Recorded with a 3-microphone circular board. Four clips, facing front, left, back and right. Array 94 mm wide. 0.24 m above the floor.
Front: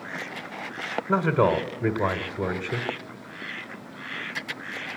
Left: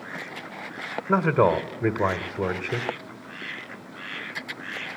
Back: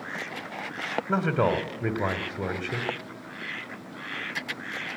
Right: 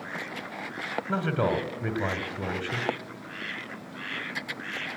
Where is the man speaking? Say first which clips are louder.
Left 7 dB, front 3 dB; 75° left, 1.1 m.